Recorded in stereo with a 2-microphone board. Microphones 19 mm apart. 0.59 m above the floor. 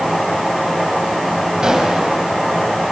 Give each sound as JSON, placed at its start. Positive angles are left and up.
{"t": 1.6, "sound": "a gunshot", "side_deg": -40, "distance_m": 5.0}